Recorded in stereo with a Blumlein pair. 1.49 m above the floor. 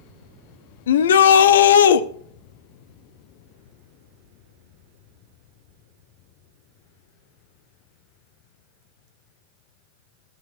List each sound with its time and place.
0.9 s a shout: 60° left, 0.9 m